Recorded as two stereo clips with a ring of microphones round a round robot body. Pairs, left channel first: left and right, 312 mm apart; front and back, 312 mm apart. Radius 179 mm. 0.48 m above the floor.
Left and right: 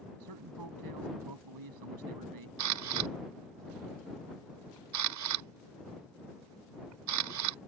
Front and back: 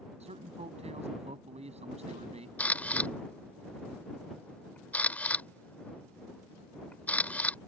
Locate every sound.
0.2 s a man speaking: 110° right
2.6 s a camera shutter: 85° right